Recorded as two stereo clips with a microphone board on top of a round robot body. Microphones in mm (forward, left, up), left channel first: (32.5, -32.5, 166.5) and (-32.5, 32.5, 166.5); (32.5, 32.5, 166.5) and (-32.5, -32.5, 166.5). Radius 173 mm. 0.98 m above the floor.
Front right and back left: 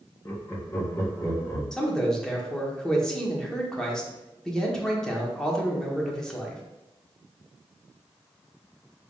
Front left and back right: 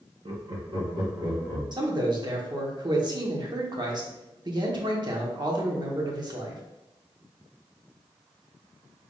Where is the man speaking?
125° right, 1.1 m.